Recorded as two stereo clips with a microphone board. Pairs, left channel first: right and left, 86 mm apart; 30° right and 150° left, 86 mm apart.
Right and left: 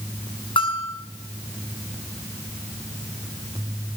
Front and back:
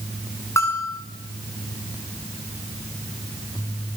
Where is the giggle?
No giggle in this recording.